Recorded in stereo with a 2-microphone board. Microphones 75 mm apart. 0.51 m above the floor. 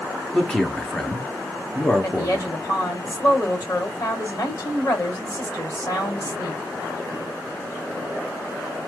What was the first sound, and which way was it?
A man speaking, 5° left (ahead or behind).